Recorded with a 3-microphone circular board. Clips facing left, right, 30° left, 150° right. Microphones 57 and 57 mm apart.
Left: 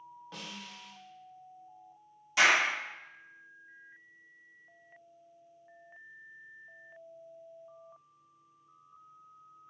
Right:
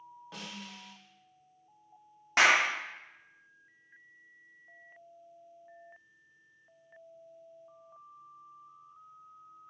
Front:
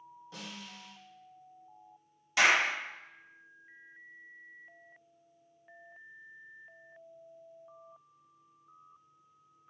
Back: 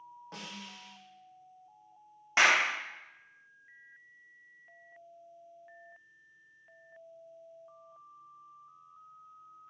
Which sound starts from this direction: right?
A clap, at 2.4 s.